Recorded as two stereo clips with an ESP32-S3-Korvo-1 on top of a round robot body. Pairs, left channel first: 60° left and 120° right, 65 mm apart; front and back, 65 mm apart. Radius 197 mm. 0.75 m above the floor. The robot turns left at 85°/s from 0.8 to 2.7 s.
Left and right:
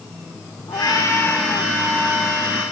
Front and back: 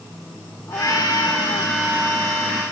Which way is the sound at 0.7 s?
40° left.